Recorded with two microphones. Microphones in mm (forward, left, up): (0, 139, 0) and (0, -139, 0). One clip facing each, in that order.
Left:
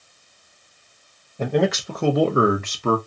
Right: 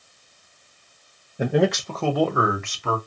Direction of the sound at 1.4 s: 15° right (ahead or behind).